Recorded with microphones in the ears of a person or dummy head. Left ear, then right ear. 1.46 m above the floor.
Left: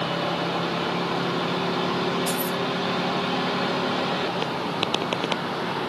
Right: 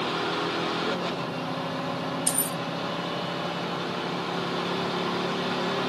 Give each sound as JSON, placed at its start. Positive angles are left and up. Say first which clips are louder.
{"t": 2.3, "sound": "keys jangling", "louder": "left 4 dB", "side_deg": -40, "distance_m": 1.0}